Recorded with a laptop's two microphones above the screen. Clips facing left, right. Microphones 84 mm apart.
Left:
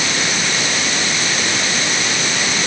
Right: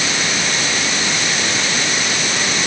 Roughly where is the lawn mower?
I don't hear a lawn mower.